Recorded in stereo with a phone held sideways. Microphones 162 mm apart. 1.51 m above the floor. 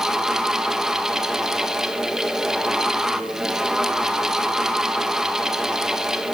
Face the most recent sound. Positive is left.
turn(degrees=-5)  # may be behind; listen again after turning